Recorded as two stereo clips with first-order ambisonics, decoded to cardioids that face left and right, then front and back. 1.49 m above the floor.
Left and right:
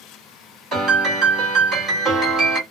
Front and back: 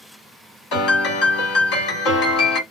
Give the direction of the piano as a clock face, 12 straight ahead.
1 o'clock.